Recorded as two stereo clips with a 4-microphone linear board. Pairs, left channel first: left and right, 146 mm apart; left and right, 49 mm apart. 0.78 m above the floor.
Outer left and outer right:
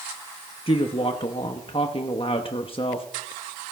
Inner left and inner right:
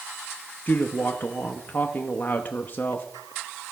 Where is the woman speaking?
40° left (ahead or behind), 0.9 m.